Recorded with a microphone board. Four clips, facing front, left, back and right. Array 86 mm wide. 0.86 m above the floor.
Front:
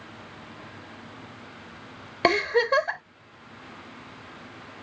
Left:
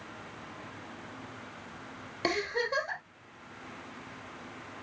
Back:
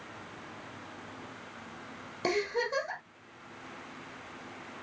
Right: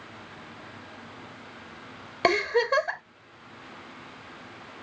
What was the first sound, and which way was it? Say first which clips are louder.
A giggle: right 8 dB, front 9 dB; 35° right.